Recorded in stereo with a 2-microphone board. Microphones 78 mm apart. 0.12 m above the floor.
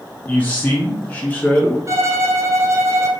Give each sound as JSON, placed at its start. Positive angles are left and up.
{"t": 0.3, "sound": "a man speaking", "side_deg": 20, "distance_m": 1.3}
{"t": 1.9, "sound": "a violin", "side_deg": -40, "distance_m": 0.7}